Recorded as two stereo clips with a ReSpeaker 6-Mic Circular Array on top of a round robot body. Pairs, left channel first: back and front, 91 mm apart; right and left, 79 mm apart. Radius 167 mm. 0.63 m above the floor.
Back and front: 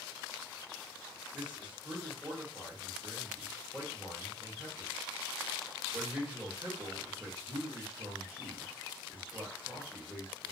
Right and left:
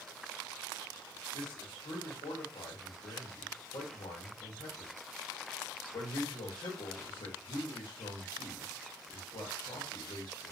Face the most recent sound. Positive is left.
turn(degrees=-75)